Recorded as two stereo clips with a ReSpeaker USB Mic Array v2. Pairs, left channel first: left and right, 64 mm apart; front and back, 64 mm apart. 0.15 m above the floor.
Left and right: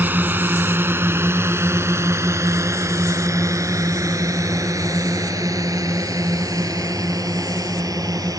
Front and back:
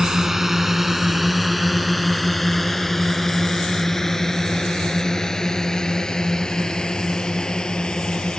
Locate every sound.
0.0 s a drone: 105° right; by 8.4 s 75° right